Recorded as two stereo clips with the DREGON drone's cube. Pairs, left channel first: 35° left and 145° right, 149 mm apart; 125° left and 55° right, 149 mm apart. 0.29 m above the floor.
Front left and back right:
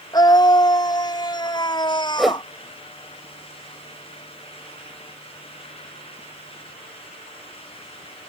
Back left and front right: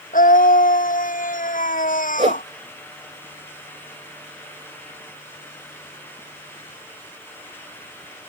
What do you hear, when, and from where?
0.1 s a scream: 100° left; by 2.5 s 95° left
2.2 s a whoosh: 60° right